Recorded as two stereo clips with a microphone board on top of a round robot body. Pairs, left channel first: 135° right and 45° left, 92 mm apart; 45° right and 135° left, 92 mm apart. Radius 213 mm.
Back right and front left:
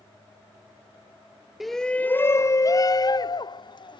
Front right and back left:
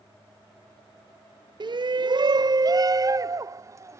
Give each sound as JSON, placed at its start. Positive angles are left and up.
{"t": 1.6, "sound": "a shout", "azimuth_deg": 130}